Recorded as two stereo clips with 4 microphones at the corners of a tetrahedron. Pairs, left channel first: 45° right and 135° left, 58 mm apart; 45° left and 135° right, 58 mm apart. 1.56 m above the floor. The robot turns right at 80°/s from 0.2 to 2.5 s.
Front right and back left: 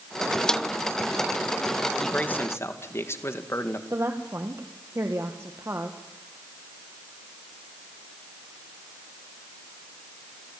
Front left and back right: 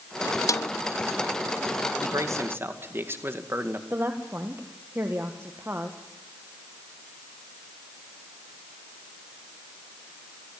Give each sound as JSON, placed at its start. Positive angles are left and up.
{"t": 0.5, "sound": "a snare drum", "azimuth_deg": 35, "distance_m": 0.5}
{"t": 2.0, "sound": "a man speaking", "azimuth_deg": -125, "distance_m": 2.0}
{"t": 3.9, "sound": "a woman speaking", "azimuth_deg": 175, "distance_m": 1.7}